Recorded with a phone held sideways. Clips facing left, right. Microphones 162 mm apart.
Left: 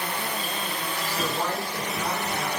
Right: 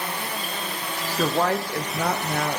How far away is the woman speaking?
About 0.6 m.